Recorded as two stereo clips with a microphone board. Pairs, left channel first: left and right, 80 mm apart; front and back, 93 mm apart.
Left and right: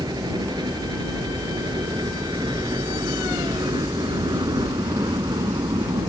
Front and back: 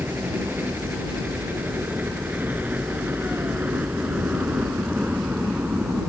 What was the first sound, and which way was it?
A helicopter, 110° right.